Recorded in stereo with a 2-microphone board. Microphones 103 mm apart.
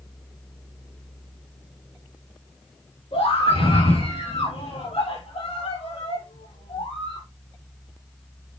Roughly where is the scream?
Left.